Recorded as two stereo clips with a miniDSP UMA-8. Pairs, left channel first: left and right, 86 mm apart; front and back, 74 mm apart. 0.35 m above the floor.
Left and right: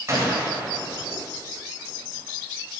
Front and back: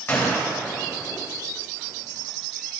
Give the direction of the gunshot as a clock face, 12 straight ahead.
2 o'clock.